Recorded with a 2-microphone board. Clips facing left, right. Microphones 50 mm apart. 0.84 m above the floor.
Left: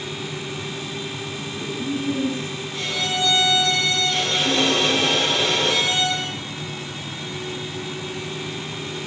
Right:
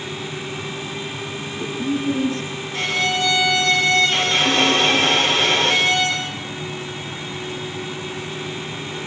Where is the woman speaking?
70° right (ahead or behind), 10 m.